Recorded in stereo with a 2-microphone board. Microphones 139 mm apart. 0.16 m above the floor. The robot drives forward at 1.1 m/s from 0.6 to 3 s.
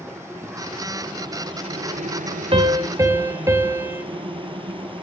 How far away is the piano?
About 0.5 m.